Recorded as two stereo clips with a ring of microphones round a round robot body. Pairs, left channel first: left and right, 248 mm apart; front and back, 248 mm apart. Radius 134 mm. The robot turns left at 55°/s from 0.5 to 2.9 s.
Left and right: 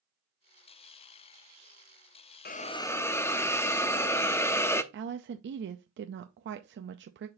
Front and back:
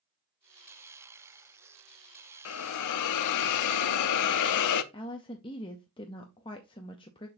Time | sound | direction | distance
2.5 | a hiss | 35° left | 0.6 m
4.9 | a woman speaking | 65° right | 0.5 m